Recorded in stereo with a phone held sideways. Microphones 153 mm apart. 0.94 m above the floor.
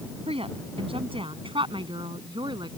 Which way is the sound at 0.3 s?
40° right (ahead or behind).